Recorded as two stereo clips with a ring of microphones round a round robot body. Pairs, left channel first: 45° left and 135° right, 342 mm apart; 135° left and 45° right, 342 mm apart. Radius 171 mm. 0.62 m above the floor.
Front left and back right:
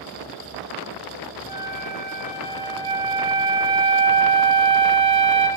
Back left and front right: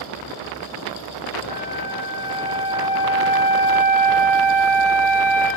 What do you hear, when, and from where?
1.5 s a flute: 165° right, 2.5 m